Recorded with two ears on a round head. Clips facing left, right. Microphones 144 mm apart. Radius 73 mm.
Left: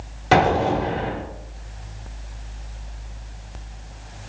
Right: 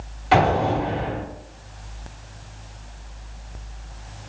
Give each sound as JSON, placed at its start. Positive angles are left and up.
{"t": 0.3, "sound": "an explosion", "side_deg": 50, "distance_m": 1.4}